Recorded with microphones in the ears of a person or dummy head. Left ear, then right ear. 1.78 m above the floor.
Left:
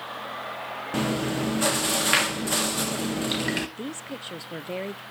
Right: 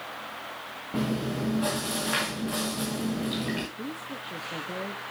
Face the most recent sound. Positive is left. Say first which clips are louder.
# left 1 dB
turn(degrees=35)  # may be behind; listen again after turning